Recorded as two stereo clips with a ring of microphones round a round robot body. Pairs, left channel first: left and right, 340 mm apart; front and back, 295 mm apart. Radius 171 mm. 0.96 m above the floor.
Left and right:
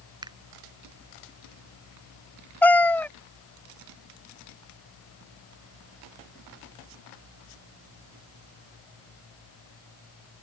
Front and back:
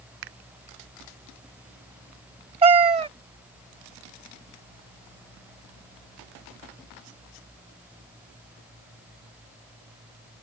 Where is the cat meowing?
165° left.